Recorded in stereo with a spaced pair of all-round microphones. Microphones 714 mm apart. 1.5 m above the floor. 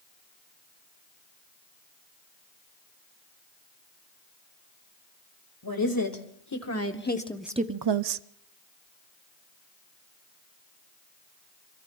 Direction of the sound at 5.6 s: 30° left (ahead or behind).